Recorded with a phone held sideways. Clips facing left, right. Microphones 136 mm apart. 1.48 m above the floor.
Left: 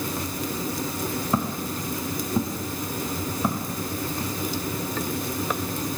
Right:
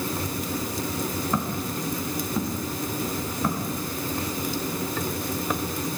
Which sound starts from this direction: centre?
Footsteps, at 1.3 s.